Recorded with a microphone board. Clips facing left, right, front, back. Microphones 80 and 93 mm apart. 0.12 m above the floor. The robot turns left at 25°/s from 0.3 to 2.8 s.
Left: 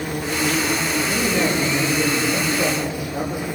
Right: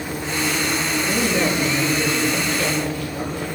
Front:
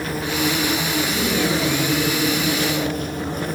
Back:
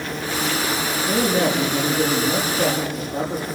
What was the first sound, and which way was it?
An insect, 80° left.